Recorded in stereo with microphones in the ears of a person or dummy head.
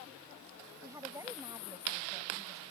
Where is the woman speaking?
15° right (ahead or behind).